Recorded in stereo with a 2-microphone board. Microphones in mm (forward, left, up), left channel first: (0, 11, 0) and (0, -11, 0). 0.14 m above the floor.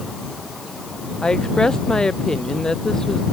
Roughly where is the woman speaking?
Left.